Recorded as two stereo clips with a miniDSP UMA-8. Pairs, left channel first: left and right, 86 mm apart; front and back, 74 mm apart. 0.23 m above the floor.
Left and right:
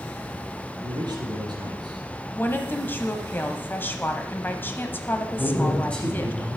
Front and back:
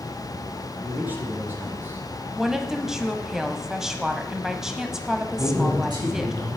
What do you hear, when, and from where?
0.8 s a man speaking: 115° right, 3 m
2.4 s a woman speaking: 110° left, 1.0 m
5.3 s a man speaking: 165° left, 5.5 m